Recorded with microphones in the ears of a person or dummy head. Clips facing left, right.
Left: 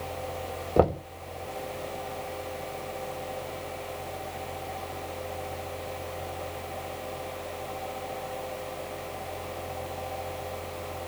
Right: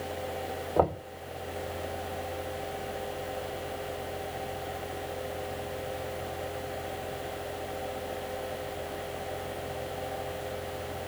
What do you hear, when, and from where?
0.8 s knocking: 35° left (ahead or behind), 1.8 m